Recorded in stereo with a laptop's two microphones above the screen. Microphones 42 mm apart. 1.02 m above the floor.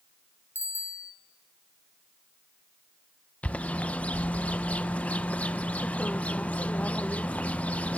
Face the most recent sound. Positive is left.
turn(degrees=35)  # may be behind; listen again after turning